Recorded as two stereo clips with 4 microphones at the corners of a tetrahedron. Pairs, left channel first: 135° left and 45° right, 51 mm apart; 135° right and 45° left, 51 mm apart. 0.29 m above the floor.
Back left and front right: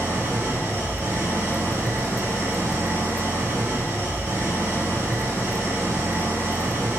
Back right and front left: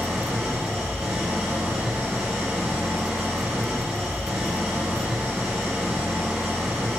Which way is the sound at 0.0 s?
25° right.